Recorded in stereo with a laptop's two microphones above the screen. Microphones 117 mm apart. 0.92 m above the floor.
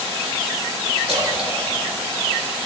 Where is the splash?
70° right (ahead or behind), 2 m.